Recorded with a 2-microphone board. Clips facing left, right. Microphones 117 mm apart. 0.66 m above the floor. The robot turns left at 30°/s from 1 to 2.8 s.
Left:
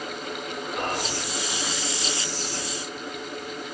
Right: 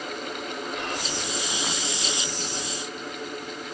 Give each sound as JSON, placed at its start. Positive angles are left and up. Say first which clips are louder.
{"t": 0.8, "sound": "whispering", "louder": "left 3 dB", "side_deg": 45, "distance_m": 1.3}